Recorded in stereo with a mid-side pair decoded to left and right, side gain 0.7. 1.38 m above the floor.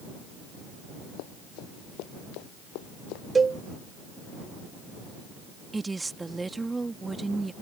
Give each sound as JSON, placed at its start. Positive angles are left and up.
{"t": 1.2, "sound": "running footsteps", "azimuth_deg": 70}
{"t": 3.4, "sound": "a cowbell", "azimuth_deg": -20}
{"t": 5.7, "sound": "a woman speaking", "azimuth_deg": -15}